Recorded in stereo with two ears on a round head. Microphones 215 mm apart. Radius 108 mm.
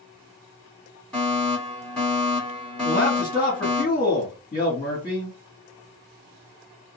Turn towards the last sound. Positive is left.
turn(degrees=25)  # may be behind; listen again after turning